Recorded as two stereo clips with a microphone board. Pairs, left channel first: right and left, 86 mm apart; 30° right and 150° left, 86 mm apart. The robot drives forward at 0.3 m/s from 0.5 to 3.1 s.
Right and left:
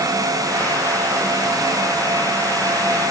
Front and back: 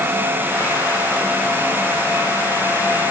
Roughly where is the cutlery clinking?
No cutlery clinking in this recording.